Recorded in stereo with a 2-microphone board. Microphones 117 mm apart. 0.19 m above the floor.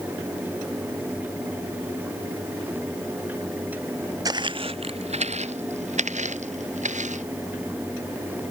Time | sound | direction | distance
4.2 | footsteps | 30° right (ahead or behind) | ?